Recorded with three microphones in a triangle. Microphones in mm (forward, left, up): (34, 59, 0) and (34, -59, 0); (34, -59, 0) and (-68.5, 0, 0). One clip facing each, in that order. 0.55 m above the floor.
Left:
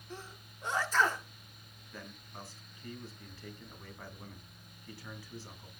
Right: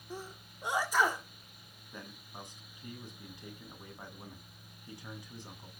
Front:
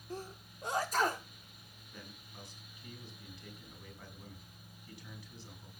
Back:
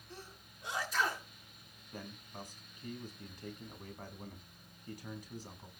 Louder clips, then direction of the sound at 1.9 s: Even, back 6 dB; 165° right.